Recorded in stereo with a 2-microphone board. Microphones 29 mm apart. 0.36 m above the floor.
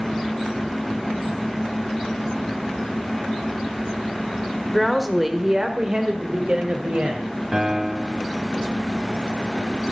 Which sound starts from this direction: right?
A piano, at 7.5 s.